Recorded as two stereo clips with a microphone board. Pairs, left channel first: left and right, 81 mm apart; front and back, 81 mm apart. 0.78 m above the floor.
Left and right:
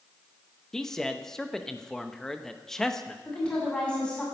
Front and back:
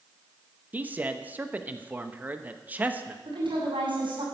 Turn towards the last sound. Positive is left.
turn(degrees=170)